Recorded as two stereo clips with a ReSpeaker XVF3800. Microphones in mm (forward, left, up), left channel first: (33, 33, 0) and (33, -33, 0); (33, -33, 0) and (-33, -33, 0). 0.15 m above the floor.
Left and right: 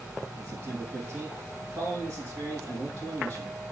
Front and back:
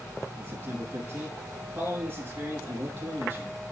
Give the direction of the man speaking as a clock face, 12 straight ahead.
5 o'clock.